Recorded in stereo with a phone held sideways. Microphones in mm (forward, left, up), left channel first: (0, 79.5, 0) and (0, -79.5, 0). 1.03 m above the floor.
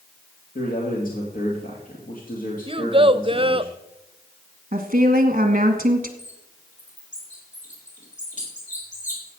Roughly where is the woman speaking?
Right.